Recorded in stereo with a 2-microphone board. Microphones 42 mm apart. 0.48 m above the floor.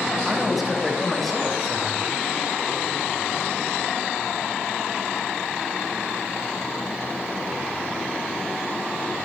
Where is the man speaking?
5° right (ahead or behind), 5 m; by 2.2 s 10° left (ahead or behind), 5.5 m.